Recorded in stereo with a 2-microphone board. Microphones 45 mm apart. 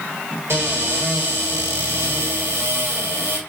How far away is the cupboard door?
About 1.4 m.